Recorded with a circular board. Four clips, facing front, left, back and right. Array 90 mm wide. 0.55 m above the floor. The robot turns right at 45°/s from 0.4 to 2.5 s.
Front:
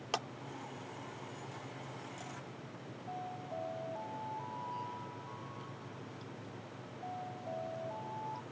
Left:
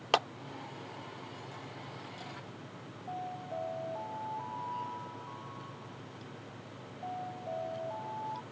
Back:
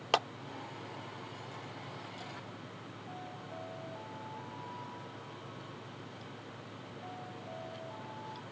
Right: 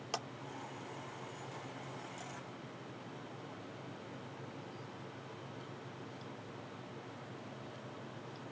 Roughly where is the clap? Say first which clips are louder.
Left 13 dB, back 8 dB; behind left.